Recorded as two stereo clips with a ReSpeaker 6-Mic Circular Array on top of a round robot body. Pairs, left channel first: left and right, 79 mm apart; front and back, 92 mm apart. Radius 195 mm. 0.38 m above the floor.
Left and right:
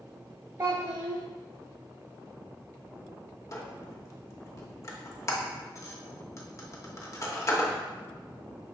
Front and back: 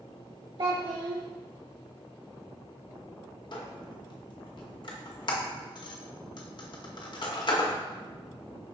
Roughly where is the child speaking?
Behind right.